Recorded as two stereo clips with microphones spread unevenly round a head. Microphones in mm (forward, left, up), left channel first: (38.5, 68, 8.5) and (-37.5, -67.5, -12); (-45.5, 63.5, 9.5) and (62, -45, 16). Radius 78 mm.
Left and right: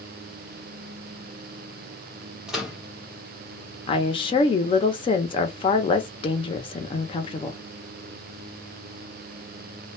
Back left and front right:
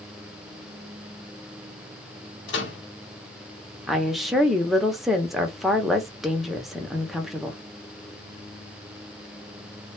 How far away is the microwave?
About 1.0 m.